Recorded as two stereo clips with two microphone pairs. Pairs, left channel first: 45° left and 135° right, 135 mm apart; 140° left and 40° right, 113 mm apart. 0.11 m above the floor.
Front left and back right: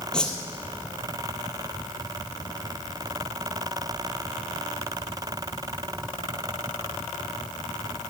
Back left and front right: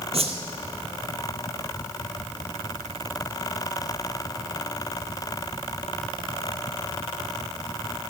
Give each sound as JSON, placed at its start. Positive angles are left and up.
{"t": 0.1, "sound": "a whoosh", "azimuth_deg": -40, "distance_m": 1.6}